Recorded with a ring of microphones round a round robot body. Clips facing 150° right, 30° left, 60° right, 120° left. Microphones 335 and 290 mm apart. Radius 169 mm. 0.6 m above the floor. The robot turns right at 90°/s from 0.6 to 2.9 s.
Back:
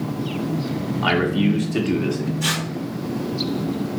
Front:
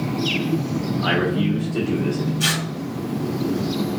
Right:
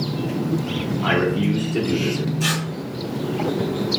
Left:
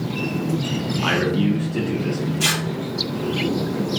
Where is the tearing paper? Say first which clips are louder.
Front 1 dB, even; 55° left, 1.6 m; by 2.6 s 80° left, 1.6 m.